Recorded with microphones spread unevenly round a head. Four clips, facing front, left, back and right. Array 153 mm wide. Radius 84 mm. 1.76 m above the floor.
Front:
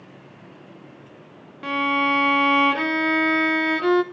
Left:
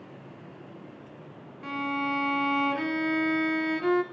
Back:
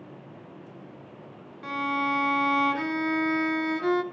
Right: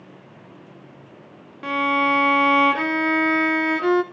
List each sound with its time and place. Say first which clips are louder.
1.6 s a violin: right 10 dB, front 6 dB; 50° right, 1.1 m